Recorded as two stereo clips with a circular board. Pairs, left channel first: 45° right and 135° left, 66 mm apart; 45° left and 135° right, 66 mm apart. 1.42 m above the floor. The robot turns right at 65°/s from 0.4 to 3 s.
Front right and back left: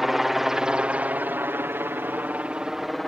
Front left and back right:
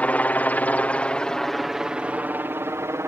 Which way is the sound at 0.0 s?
55° left.